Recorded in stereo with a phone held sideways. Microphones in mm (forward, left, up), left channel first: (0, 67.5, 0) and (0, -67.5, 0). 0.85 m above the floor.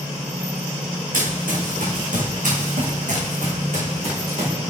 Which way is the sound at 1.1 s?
80° right.